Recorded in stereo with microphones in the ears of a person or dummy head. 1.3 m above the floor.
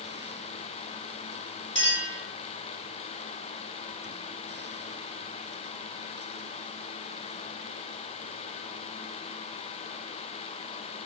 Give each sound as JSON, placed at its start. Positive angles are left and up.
{"t": 1.8, "sound": "a clink", "side_deg": 30, "distance_m": 3.0}